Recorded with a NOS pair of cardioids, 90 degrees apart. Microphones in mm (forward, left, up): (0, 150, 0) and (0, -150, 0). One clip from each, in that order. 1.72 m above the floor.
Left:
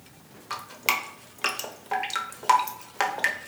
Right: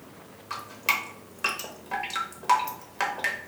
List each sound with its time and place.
0.5 s dripping: 20° left, 0.5 m